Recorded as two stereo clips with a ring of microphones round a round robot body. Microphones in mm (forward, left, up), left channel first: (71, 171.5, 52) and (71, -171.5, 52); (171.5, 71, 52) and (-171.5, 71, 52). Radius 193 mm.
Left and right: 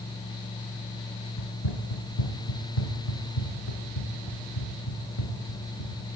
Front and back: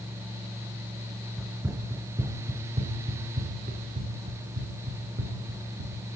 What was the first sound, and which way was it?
Running footsteps, 90° left.